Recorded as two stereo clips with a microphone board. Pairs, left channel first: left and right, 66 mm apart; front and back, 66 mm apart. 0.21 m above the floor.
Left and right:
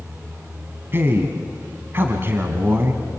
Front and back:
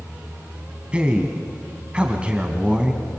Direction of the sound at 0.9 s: 115° right.